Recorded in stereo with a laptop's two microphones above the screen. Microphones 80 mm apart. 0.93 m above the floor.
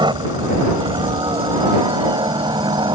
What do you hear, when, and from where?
0.0 s a helicopter: 75° right (ahead or behind)